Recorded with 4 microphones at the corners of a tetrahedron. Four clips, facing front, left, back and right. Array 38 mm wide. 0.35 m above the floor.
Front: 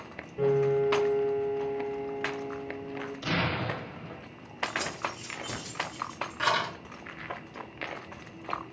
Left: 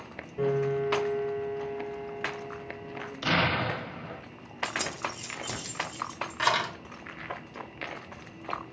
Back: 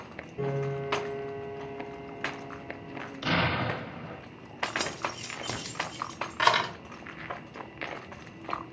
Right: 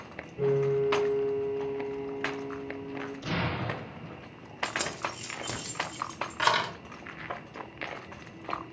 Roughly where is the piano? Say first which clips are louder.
Right 1 dB, front 7 dB; ahead left.